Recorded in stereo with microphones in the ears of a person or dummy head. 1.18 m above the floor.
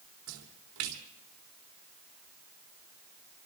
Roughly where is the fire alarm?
No fire alarm in this recording.